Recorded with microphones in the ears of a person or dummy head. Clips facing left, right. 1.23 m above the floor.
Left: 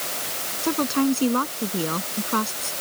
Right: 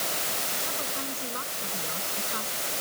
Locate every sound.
0.6 s a woman speaking: 80° left